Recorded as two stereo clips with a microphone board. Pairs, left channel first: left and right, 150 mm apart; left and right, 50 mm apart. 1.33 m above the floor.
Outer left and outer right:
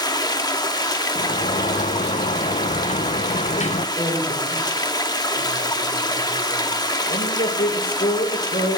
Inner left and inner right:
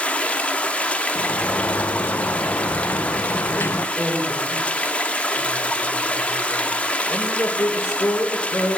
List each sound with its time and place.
0.0 s running water: 25° left (ahead or behind), 1.0 m
1.1 s a sliding door: 50° left (ahead or behind), 0.5 m
4.0 s a man speaking: 85° left, 5.5 m